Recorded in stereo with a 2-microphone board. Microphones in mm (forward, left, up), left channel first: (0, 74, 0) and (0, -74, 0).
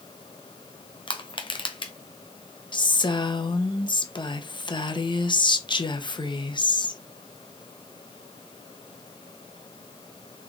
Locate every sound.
1.1 s crushing: 35° left (ahead or behind), 0.7 m
2.7 s a woman speaking: 35° left (ahead or behind), 0.7 m